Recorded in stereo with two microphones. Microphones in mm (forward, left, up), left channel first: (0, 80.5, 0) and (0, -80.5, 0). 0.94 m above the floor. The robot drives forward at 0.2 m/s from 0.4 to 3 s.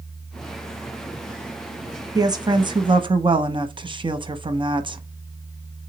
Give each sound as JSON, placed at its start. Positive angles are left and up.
{"t": 2.1, "sound": "a woman speaking", "side_deg": -25, "distance_m": 0.6}